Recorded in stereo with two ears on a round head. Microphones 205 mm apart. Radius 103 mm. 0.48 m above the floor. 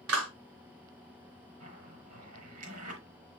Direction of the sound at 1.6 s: 80° right.